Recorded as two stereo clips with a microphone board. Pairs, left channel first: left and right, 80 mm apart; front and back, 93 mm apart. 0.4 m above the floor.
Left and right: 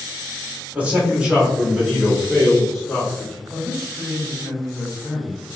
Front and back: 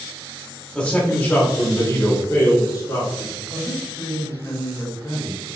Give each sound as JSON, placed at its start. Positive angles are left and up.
{"t": 0.8, "sound": "a man speaking", "azimuth_deg": -65, "distance_m": 1.5}
{"t": 3.5, "sound": "a man speaking", "azimuth_deg": -5, "distance_m": 1.6}